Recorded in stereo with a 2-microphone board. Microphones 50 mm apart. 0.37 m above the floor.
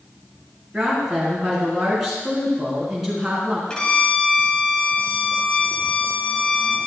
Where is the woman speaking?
10° right (ahead or behind), 3.5 m.